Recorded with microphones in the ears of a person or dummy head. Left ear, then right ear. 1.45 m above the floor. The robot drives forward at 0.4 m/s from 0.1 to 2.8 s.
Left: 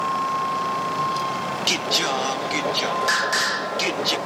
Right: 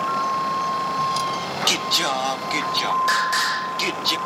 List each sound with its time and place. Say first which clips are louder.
0.0 s a vehicle: right 1 dB; centre (ahead or behind); by 4.3 s 50° right (ahead or behind)
1.7 s singing: right 1 dB; 25° right (ahead or behind); by 4.2 s 15° right (ahead or behind)